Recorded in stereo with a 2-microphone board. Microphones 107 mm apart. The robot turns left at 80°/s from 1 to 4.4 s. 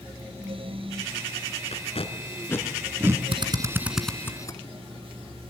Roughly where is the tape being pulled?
Left.